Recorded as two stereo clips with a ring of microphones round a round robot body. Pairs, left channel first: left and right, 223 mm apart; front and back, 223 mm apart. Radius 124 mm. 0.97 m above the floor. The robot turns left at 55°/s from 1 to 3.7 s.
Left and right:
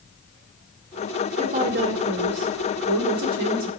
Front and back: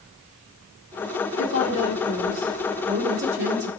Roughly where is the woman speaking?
Ahead right.